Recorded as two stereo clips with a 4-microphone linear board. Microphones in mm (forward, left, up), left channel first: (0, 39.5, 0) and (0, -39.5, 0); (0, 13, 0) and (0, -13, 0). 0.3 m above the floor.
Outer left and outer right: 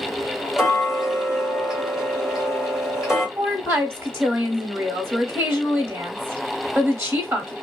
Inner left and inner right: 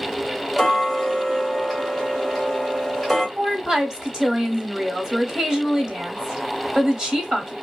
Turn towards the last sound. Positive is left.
turn(degrees=-30)  # may be behind; listen again after turning